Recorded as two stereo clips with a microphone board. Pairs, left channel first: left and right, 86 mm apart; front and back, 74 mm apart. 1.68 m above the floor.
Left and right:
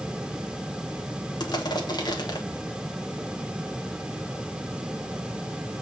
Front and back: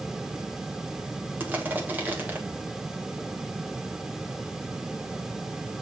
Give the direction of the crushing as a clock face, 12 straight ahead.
8 o'clock.